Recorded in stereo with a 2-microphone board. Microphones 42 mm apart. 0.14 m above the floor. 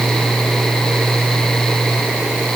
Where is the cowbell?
No cowbell in this recording.